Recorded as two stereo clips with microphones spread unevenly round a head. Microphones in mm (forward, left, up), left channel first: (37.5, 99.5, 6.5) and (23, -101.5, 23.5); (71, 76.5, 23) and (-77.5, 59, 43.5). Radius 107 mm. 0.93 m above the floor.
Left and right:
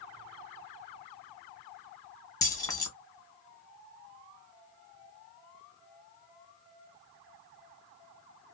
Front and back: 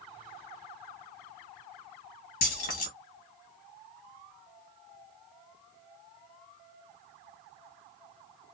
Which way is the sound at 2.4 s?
10° left.